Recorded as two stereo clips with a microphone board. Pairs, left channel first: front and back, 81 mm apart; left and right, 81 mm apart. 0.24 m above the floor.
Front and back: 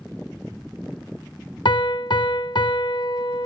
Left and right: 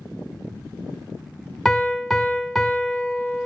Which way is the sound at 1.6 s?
Straight ahead.